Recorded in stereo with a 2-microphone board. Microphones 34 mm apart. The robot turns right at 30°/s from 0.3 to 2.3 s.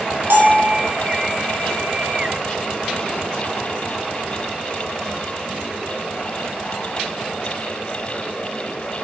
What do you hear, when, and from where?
0.3 s a bell: 75° right (ahead or behind), 2.5 m; by 0.7 s 85° right, 2.5 m